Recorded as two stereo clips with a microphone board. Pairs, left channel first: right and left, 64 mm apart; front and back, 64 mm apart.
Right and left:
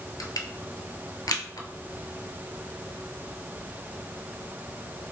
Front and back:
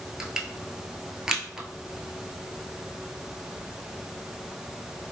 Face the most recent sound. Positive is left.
turn(degrees=-95)